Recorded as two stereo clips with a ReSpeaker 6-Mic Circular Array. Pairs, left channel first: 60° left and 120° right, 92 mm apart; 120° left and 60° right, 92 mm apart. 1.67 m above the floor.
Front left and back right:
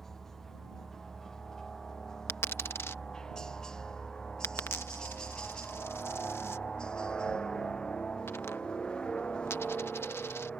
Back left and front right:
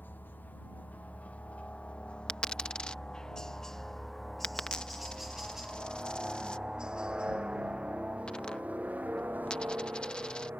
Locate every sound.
0.0 s a helicopter: 140° left; by 10.6 s 10° right
2.3 s a dropped coin: 55° left